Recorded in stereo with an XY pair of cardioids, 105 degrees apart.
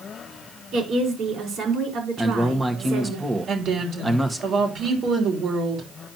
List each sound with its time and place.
0.7 s a woman speaking: 70° right, 4.5 m
2.2 s a man speaking: 15° right, 1.7 m
3.5 s a woman speaking: 60° right, 3.5 m